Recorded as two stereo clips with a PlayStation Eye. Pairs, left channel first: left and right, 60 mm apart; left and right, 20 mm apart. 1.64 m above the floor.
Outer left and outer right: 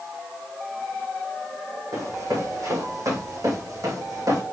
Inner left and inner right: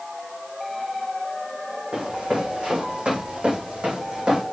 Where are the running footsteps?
70° right (ahead or behind), 5.5 m; by 4.4 s 75° right (ahead or behind), 5.5 m.